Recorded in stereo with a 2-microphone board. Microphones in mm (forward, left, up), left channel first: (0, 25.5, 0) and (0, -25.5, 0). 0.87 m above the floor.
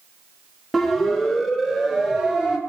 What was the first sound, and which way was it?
A siren, centre (ahead or behind).